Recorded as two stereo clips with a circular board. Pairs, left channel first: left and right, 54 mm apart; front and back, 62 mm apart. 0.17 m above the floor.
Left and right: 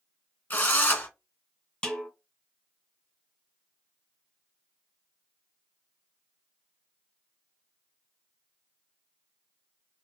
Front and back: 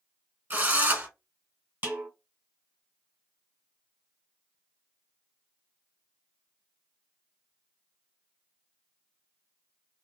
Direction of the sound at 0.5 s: 130° left.